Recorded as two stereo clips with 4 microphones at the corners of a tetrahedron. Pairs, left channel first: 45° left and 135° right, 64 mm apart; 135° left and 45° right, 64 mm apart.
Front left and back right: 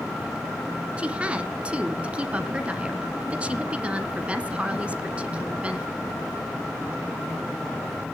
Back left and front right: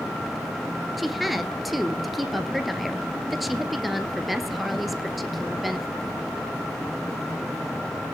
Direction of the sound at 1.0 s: 130° right.